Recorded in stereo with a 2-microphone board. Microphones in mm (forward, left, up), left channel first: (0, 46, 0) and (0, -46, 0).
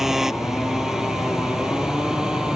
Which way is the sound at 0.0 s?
5° right (ahead or behind).